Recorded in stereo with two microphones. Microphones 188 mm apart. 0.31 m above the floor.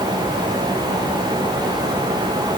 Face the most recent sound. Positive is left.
No sound to turn to.